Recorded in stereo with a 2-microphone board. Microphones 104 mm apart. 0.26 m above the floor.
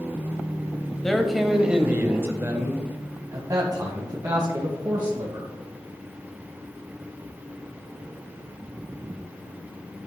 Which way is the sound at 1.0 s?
5° left (ahead or behind).